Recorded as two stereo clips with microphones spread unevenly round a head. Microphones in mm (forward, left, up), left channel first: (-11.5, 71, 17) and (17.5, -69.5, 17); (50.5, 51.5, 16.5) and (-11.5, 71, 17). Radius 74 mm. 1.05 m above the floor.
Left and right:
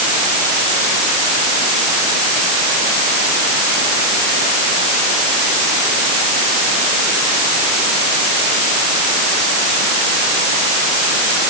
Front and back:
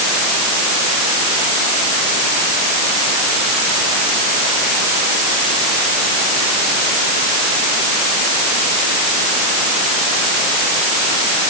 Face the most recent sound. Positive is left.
No sound to turn to.